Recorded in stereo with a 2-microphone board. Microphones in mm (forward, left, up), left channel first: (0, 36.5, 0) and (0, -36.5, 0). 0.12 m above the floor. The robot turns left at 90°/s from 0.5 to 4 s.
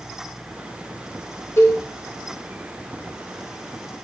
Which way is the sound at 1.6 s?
45° left (ahead or behind).